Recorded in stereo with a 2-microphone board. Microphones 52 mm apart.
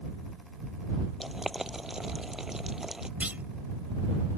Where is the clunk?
30° right (ahead or behind).